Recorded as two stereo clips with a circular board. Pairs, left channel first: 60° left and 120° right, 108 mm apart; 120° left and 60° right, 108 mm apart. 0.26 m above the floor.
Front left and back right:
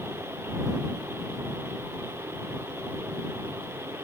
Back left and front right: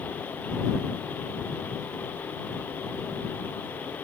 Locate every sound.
Only background noise.